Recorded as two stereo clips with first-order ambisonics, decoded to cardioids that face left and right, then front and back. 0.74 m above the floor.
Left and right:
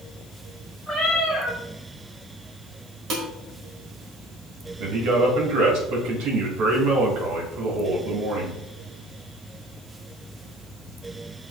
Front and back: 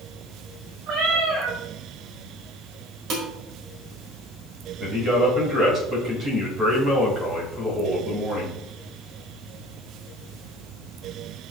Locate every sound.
0.9 s a cat meowing: 165° right, 4 m
3.1 s dishes clattering: 135° right, 1.9 m
4.8 s a man speaking: 120° right, 3.5 m